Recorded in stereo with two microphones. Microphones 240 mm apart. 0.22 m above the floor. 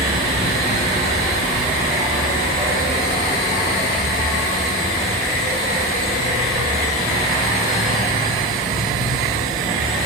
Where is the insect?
60° right (ahead or behind), 3 m.